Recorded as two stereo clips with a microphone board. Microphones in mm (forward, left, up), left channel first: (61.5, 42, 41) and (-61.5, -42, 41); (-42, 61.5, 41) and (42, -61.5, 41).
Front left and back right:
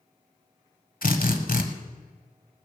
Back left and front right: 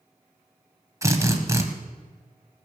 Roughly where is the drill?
Ahead.